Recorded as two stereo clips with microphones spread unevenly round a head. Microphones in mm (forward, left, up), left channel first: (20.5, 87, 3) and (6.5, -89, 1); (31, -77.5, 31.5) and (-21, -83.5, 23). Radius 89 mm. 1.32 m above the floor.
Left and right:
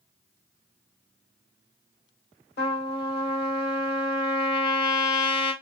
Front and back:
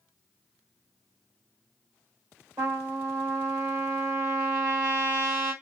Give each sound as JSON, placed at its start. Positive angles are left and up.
{"t": 2.6, "sound": "a trumpet", "azimuth_deg": 115, "distance_m": 2.5}